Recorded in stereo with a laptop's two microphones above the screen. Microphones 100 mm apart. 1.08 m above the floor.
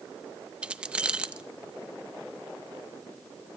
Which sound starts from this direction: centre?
Keys jangling, at 0.6 s.